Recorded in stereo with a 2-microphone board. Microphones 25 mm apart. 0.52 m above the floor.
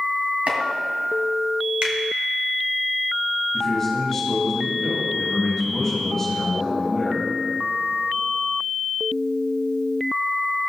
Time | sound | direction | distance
0.5 | chopping | 65° right (ahead or behind) | 2 m
1.8 | a finger snap | 55° right (ahead or behind) | 1.7 m
3.5 | a man speaking | 10° left (ahead or behind) | 3 m